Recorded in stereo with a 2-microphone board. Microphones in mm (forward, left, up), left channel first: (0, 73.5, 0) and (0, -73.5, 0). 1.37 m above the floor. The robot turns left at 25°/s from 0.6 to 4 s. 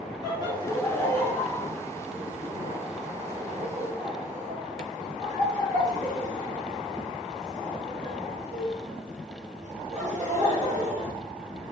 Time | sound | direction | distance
0.2 | laughter | 30° left (ahead or behind) | 2 m